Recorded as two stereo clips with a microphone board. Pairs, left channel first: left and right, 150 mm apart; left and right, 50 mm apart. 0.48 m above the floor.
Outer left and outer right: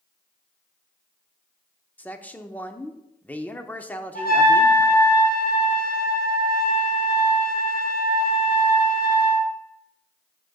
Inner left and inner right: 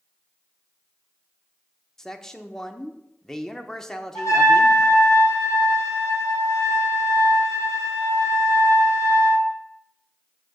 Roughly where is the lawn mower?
No lawn mower in this recording.